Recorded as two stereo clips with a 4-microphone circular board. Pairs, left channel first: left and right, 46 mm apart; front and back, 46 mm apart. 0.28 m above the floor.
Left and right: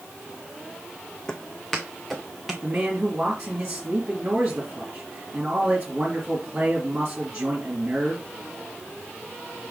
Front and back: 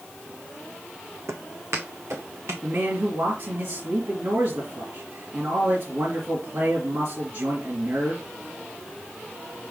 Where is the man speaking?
160° right, 2.5 m.